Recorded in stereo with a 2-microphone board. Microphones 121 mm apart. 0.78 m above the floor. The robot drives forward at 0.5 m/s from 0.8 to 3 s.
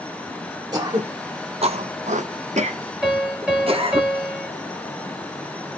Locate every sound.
0.7 s throat clearing: 35° right (ahead or behind), 0.9 m; by 4.0 s 50° right (ahead or behind), 0.6 m
3.0 s a piano: 10° right (ahead or behind), 1.9 m